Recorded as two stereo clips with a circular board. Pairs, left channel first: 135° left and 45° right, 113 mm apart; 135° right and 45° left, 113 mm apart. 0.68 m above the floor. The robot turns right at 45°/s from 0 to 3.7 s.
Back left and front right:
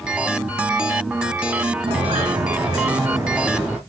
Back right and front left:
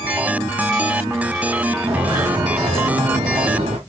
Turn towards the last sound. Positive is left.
turn(degrees=40)